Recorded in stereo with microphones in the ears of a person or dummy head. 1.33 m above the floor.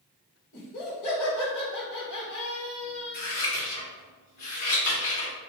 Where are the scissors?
75° left (ahead or behind), 1.8 m.